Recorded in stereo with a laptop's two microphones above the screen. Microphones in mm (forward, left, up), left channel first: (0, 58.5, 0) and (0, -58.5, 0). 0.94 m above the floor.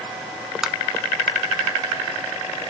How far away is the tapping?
About 0.5 m.